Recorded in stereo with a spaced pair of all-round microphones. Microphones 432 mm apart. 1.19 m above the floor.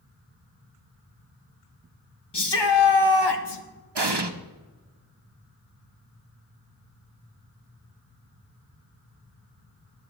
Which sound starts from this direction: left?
A shout, at 2.3 s.